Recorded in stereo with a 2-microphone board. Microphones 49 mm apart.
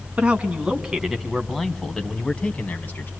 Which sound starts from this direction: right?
A man speaking, at 0.2 s.